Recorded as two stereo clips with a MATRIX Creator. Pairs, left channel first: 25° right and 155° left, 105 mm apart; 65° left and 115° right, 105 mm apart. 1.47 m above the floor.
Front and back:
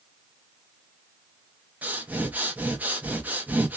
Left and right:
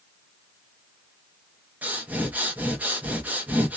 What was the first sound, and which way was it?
Breathing, 160° right.